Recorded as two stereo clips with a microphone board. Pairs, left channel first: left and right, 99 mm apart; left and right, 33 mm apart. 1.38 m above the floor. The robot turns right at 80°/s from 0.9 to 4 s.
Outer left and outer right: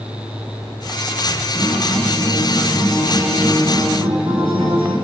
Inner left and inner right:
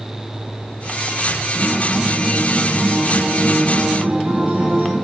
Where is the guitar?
60° left, 9.5 m; by 4.9 s 105° right, 9.5 m.